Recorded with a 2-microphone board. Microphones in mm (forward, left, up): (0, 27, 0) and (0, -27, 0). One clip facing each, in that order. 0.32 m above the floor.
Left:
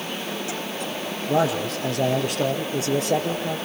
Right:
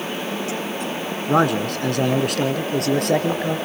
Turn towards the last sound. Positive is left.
turn(degrees=-60)  # may be behind; listen again after turning